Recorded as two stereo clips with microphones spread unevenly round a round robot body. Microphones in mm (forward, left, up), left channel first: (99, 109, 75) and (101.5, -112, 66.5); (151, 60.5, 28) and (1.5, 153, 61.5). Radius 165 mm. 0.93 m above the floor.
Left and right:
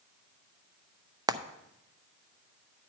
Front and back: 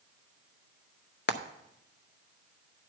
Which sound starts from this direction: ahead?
Frying, at 1.3 s.